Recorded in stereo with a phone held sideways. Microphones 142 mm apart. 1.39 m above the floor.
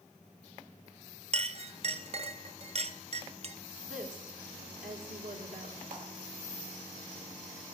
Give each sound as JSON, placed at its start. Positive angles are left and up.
{"t": 1.3, "sound": "a clink", "side_deg": -50, "distance_m": 0.6}
{"t": 3.9, "sound": "a woman speaking", "side_deg": -75, "distance_m": 2.5}
{"t": 5.9, "sound": "a clap", "side_deg": -80, "distance_m": 9.0}